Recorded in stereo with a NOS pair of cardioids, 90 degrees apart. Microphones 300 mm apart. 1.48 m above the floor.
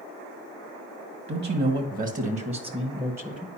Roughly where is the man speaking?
Ahead right.